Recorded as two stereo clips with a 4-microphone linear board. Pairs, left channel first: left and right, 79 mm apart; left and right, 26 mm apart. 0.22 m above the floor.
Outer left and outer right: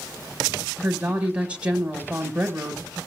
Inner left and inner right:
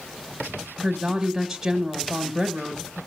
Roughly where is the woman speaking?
Centre.